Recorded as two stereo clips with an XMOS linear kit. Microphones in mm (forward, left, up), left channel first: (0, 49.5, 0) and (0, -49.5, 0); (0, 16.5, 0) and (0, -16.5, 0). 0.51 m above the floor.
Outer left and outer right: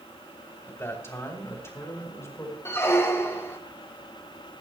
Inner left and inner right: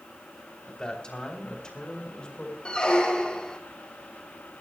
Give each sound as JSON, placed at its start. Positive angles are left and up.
{"t": 0.7, "sound": "a man speaking", "side_deg": 25, "distance_m": 3.0}
{"t": 2.6, "sound": "a squeak", "side_deg": 25, "distance_m": 1.4}